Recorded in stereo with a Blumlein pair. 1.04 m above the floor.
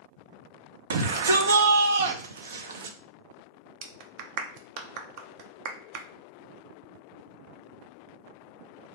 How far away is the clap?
About 0.7 m.